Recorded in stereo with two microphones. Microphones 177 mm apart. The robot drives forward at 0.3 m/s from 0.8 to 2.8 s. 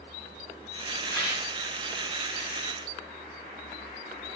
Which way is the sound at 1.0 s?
20° left (ahead or behind).